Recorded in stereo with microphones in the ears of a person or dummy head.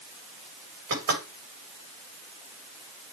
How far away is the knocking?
About 7 m.